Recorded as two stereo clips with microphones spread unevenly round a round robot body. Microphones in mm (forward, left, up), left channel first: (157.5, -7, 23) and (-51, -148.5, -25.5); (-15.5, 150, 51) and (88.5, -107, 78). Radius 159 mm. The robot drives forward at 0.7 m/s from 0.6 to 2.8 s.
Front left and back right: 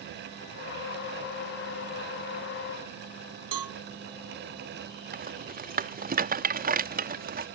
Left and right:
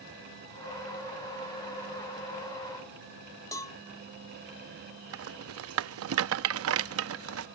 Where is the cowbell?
165° right.